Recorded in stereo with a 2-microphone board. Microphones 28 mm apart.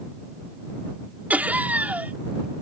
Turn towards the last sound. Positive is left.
turn(degrees=-80)